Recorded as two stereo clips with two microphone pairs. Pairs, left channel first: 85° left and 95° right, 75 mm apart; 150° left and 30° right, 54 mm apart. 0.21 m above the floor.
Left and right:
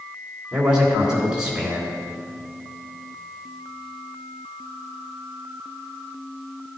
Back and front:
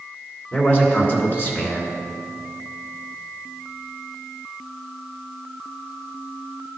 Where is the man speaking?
170° right, 2.5 m.